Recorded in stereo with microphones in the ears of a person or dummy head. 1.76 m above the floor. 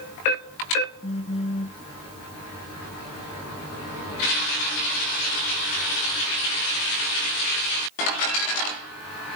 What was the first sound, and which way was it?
A phone buzzing, 30° left (ahead or behind).